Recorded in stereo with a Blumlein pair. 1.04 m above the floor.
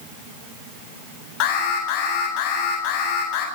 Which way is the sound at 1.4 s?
40° left.